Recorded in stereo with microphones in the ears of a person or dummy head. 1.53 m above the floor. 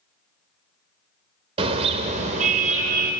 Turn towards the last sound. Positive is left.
turn(degrees=-55)  # may be behind; listen again after turning